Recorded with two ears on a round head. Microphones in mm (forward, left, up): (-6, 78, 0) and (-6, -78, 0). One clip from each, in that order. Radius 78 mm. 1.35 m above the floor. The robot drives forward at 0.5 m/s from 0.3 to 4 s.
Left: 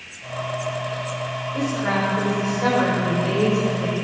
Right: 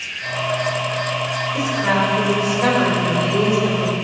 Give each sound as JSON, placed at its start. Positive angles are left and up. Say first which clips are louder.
{"t": 1.5, "sound": "a woman speaking", "louder": "right 4 dB", "side_deg": -55, "distance_m": 5.0}